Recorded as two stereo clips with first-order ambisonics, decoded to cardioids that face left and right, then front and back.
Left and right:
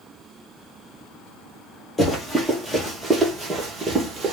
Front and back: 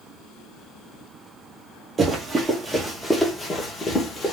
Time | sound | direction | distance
2.0 | running footsteps | 150° left | 1.3 m